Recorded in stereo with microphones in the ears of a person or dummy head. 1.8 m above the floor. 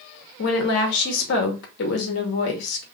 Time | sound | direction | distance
0.4 | a woman speaking | 65° left (ahead or behind) | 0.8 m